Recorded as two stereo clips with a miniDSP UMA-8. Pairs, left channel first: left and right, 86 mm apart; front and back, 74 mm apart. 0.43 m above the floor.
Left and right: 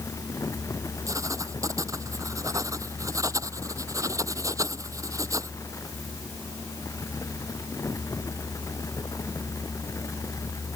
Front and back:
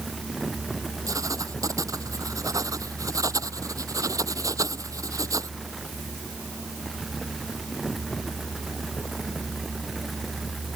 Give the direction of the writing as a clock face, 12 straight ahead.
5 o'clock.